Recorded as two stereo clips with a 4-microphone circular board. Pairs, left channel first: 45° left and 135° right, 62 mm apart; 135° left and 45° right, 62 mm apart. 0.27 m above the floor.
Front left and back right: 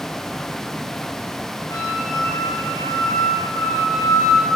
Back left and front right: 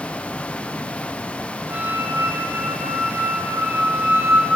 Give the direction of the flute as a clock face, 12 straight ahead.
12 o'clock.